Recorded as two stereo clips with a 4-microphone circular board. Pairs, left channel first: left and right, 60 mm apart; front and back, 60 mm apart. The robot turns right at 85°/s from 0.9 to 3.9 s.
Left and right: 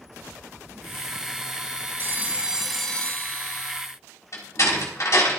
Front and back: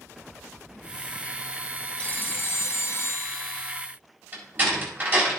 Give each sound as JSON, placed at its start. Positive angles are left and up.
{"t": 2.0, "sound": "a phone ringing", "azimuth_deg": -60, "distance_m": 1.0}
{"t": 4.3, "sound": "a door slam", "azimuth_deg": 120, "distance_m": 3.5}